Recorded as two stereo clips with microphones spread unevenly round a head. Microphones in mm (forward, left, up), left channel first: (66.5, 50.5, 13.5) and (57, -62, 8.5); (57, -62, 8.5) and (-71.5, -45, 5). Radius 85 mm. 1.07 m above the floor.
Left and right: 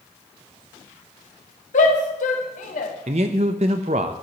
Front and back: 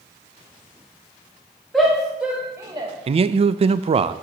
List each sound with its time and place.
1.7 s a shout: 80° left, 1.6 m; by 2.9 s 110° left, 0.9 m
3.1 s a man speaking: 145° right, 0.5 m